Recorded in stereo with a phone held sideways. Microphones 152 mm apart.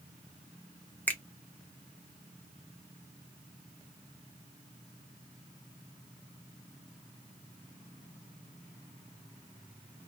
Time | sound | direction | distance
1.1 | a finger snap | 10° left (ahead or behind) | 0.5 m